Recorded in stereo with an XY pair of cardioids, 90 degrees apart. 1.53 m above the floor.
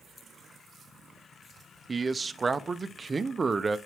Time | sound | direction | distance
1.9 | a man speaking | 30° right | 0.7 m